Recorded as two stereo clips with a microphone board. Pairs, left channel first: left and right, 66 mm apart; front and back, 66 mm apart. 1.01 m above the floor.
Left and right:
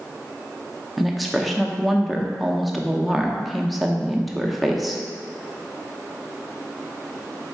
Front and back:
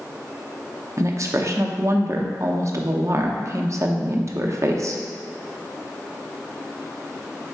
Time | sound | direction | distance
1.0 | a woman speaking | straight behind | 0.5 m